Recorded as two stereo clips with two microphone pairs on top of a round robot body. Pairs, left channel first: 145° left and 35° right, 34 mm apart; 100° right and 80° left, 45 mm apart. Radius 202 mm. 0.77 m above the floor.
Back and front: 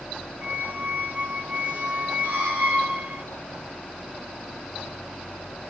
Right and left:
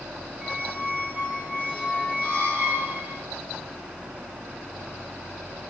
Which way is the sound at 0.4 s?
35° right.